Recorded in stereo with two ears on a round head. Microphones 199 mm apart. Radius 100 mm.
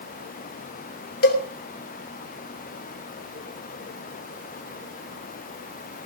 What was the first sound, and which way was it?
A cowbell, 50° left (ahead or behind).